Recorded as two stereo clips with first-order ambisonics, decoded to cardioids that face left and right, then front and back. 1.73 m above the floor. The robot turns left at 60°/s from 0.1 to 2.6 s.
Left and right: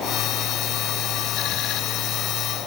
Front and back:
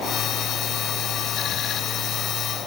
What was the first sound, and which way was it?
Only background noise.